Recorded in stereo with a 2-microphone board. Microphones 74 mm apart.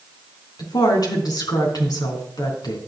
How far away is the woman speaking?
About 3.5 m.